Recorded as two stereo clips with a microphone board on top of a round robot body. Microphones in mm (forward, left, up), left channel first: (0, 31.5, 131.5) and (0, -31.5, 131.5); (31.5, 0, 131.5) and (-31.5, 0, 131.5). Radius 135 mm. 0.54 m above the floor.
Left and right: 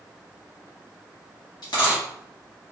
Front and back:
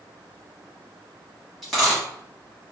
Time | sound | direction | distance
1.6 | a dropped coin | 90° left | 1.0 m